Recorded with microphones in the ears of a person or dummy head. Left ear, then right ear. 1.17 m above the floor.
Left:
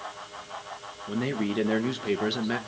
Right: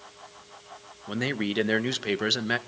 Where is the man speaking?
45° right (ahead or behind), 1.2 m.